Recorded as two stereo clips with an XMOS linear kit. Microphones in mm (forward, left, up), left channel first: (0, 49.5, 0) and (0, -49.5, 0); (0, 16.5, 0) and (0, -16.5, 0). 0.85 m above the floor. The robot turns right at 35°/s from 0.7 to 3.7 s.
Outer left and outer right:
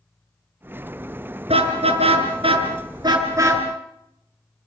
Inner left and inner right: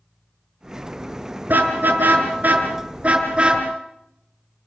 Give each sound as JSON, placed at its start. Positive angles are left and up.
{"t": 1.5, "sound": "a car horn", "side_deg": -80, "distance_m": 5.0}